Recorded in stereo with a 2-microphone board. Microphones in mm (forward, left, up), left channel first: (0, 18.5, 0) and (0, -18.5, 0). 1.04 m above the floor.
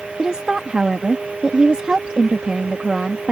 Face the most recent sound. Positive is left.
turn(degrees=-25)  # may be behind; listen again after turning